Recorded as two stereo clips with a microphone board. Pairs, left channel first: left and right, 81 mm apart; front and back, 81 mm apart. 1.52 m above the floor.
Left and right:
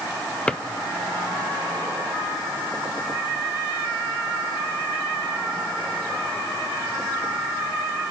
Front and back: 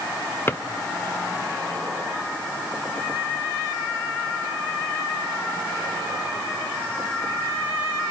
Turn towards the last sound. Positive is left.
turn(degrees=25)